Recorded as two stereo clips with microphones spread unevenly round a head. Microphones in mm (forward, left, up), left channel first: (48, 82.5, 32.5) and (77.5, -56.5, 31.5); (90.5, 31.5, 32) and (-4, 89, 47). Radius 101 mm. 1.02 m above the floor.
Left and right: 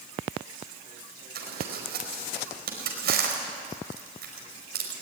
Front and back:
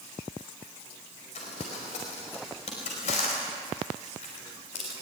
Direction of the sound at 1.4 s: 75° right.